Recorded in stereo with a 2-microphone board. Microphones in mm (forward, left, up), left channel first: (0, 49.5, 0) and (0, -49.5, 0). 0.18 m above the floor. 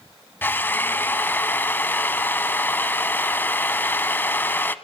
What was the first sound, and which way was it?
A drill, 20° left (ahead or behind).